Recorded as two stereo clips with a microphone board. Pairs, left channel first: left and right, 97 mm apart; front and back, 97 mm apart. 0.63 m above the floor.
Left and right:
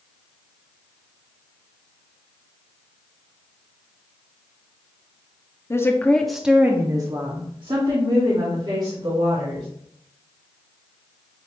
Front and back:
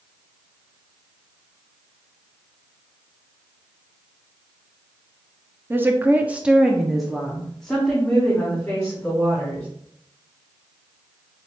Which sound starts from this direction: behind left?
A woman speaking, at 5.7 s.